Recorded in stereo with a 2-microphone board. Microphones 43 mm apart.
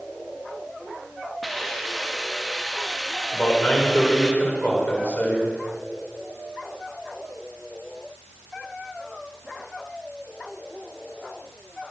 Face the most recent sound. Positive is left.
turn(degrees=40)  # may be behind; listen again after turning